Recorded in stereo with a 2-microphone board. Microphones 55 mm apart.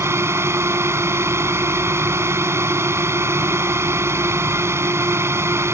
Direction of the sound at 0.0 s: 55° right (ahead or behind).